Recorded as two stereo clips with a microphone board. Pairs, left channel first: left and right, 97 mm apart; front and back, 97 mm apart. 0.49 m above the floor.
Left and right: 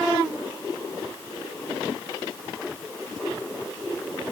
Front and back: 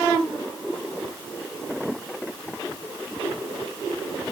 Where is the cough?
No cough in this recording.